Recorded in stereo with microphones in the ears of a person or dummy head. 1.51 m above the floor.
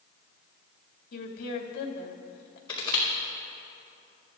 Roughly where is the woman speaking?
Left.